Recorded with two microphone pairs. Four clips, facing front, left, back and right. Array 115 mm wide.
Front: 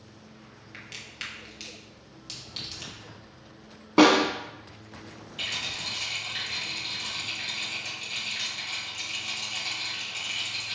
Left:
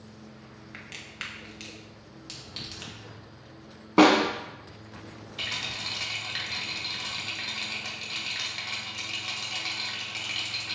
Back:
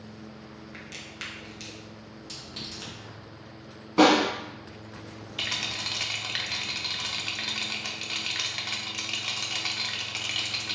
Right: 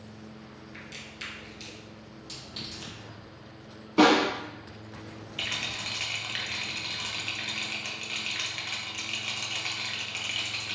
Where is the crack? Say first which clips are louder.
Even, back 3 dB; 110° left, 0.7 m.